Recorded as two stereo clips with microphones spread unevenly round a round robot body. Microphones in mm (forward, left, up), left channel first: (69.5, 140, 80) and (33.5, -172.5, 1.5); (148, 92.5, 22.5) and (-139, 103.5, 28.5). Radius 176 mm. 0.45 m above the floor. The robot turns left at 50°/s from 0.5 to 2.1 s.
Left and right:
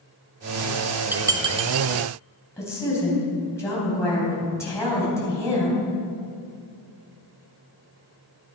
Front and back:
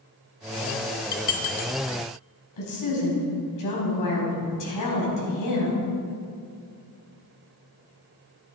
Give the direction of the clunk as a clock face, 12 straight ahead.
I don't hear a clunk.